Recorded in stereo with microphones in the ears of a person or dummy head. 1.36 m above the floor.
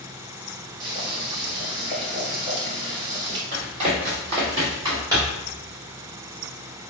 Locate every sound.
0.8 s boiling: 25° right (ahead or behind), 1.9 m
3.5 s running footsteps: 35° right (ahead or behind), 1.9 m; by 5.5 s 15° right (ahead or behind), 2.5 m